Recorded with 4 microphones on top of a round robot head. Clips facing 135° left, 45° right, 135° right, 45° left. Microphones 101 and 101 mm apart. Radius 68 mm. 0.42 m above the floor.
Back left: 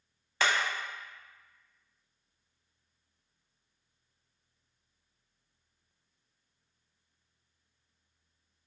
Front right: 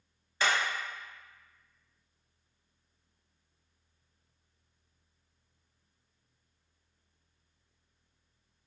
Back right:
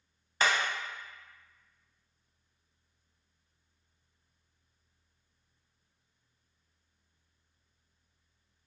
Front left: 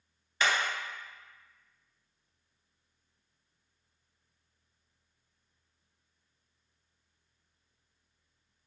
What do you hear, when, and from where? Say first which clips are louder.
0.4 s hammering: even, back right 1 dB; 165° left, 0.7 m